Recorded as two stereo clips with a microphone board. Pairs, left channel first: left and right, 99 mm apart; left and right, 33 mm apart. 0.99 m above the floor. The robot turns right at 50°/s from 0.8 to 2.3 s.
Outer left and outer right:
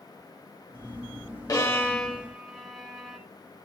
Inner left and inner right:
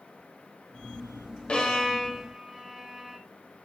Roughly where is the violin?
Left.